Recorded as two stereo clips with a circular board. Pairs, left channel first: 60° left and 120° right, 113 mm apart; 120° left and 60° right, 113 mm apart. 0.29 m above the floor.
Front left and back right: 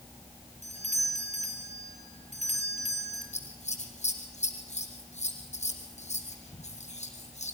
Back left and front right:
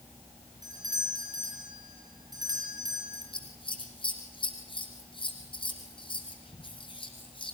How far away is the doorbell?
About 7.5 m.